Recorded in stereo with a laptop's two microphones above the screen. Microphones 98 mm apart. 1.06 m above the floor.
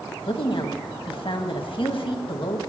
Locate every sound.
0.3 s a woman speaking: 60° left (ahead or behind), 1.5 m